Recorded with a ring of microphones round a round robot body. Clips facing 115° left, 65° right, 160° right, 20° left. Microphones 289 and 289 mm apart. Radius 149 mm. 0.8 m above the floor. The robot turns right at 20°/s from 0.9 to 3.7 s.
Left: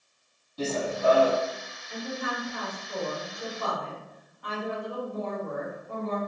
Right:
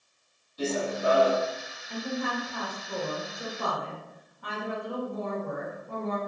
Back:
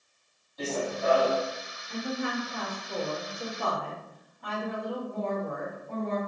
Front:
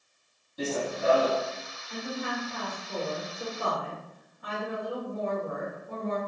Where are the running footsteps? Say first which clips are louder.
Even, front 1 dB; 80° left, 1.4 m; by 1.4 s 90° left, 1.4 m.